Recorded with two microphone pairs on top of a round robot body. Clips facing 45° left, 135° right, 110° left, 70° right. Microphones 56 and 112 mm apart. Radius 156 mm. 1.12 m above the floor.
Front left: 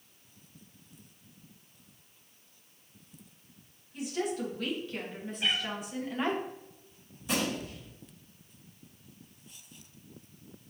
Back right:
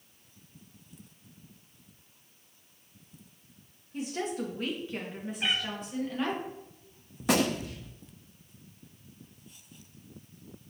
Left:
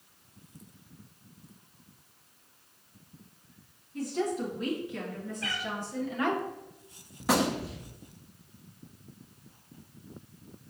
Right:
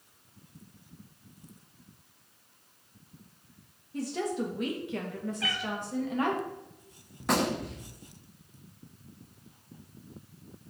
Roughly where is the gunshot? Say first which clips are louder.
Back right 5 dB, left 1 dB; behind.